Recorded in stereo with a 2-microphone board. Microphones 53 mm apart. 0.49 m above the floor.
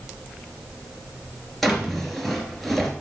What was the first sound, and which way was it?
A drawer, centre (ahead or behind).